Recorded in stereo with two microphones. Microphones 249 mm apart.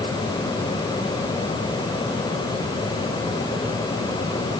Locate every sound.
Only background noise.